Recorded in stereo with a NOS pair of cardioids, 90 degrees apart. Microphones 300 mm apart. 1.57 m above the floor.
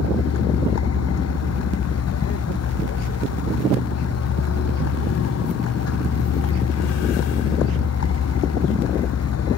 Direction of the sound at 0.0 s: 55° left.